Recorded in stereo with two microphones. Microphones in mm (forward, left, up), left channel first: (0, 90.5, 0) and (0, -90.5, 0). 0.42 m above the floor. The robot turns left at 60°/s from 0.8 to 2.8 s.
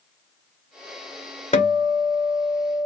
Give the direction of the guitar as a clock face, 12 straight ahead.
8 o'clock.